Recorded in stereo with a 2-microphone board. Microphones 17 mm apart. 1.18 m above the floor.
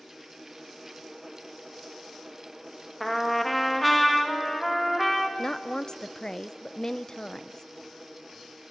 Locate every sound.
3.0 s a trumpet: 10° left (ahead or behind), 2 m
5.4 s a woman speaking: 45° left (ahead or behind), 0.6 m